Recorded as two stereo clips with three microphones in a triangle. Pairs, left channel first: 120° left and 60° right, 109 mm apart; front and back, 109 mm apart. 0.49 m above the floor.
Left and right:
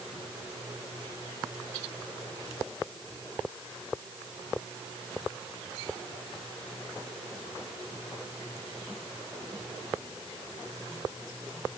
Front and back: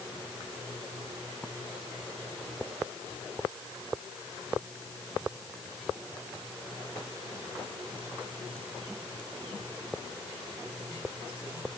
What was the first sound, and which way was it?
Only background noise.